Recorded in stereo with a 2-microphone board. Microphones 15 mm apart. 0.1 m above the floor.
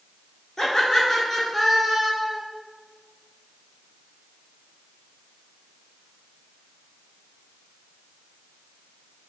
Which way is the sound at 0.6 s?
30° left (ahead or behind).